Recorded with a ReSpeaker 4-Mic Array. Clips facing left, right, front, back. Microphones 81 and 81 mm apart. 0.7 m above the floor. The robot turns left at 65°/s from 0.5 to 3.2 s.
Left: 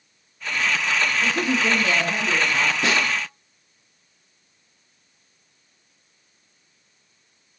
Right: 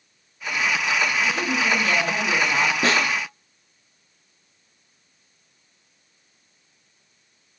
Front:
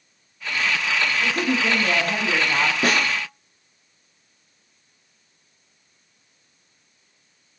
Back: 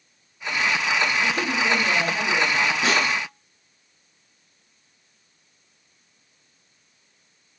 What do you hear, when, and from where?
1.2 s a woman speaking: 55° left, 7 m; by 2.7 s 45° right, 7 m
2.8 s a snare drum: 40° right, 7.5 m; by 3.2 s 65° right, 7.5 m